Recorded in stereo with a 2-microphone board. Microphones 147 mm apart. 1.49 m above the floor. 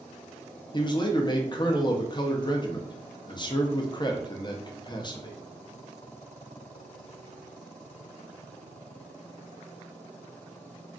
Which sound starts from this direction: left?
A man speaking, at 0.7 s.